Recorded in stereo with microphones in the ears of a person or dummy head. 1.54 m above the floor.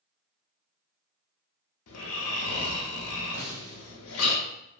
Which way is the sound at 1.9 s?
70° left (ahead or behind).